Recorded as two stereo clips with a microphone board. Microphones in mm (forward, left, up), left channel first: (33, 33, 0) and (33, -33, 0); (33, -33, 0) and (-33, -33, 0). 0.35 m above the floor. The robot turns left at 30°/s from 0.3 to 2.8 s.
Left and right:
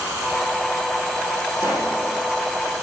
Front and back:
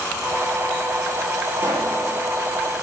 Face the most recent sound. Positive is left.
turn(degrees=180)